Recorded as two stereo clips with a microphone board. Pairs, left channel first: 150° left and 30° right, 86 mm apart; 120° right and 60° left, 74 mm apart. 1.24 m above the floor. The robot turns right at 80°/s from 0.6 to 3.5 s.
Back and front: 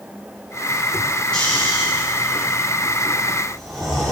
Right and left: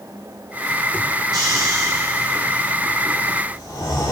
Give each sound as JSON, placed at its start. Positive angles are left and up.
{"t": 1.3, "sound": "snoring", "azimuth_deg": 70, "distance_m": 3.5}